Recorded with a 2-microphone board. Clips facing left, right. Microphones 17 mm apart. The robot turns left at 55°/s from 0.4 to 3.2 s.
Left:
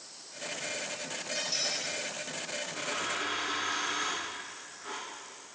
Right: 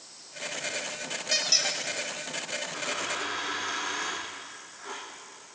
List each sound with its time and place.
1.3 s a squeak: 50° right (ahead or behind), 1.0 m; by 1.8 s 40° right (ahead or behind), 1.0 m
2.7 s a dropped coin: 80° right, 5 m; by 5.0 s 75° right (ahead or behind), 5 m